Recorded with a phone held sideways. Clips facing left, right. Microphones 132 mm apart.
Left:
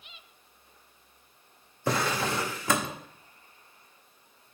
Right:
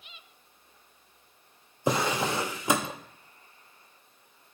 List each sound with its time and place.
1.9 s a drawer: 20° right (ahead or behind), 0.7 m